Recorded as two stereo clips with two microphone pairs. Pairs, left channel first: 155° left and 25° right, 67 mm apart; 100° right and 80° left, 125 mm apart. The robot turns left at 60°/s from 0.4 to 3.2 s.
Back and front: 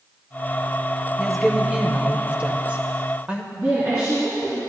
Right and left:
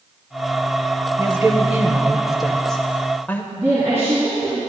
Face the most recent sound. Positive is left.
turn(degrees=10)